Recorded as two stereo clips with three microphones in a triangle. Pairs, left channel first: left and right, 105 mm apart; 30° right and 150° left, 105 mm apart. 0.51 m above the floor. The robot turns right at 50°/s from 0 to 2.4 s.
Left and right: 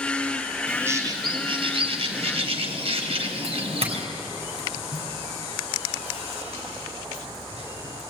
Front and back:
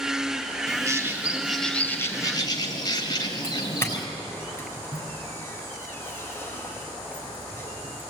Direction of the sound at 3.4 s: 95° right.